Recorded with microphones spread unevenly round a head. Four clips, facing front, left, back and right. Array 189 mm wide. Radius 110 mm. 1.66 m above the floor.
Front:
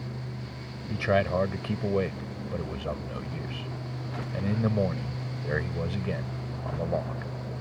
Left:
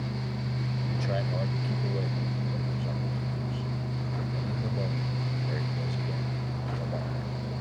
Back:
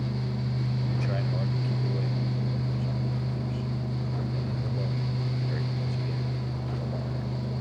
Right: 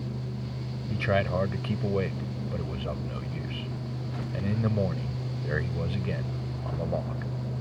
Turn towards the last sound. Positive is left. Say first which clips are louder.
# right 7 dB, front 6 dB
turn(degrees=-15)